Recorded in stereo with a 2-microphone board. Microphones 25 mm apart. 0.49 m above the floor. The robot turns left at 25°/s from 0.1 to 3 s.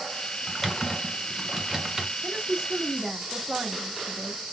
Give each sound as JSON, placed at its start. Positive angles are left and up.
{"t": 0.5, "sound": "typing on a keyboard", "side_deg": 15, "distance_m": 0.9}
{"t": 2.2, "sound": "a woman speaking", "side_deg": -30, "distance_m": 1.0}